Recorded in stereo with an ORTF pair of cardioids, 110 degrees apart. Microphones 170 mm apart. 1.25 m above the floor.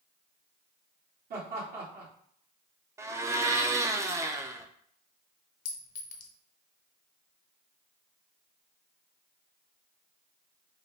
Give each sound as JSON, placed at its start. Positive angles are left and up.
{"t": 1.3, "sound": "laughter", "azimuth_deg": -60, "distance_m": 2.0}
{"t": 3.0, "sound": "a blender", "azimuth_deg": -15, "distance_m": 0.6}
{"t": 5.7, "sound": "a clink", "azimuth_deg": 55, "distance_m": 0.8}